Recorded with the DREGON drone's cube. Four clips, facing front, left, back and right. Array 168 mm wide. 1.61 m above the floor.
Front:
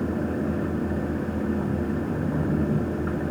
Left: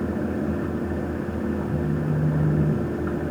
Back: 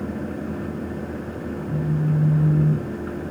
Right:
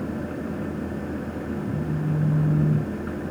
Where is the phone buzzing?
45° right, 7 m.